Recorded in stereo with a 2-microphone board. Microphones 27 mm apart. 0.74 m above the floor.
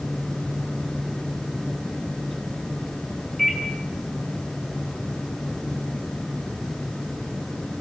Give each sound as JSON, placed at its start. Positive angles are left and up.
{"t": 3.4, "sound": "a microwave", "side_deg": 5, "distance_m": 7.0}